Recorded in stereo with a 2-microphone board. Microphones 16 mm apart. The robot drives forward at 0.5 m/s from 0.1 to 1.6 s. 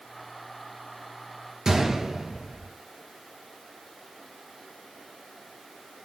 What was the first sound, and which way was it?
A gunshot, 30° right (ahead or behind).